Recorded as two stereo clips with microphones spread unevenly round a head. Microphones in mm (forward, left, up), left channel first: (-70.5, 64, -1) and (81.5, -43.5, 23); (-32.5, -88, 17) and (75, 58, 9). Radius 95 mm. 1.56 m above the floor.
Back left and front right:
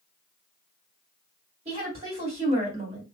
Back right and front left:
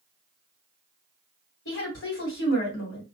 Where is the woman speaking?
100° right, 1.8 m.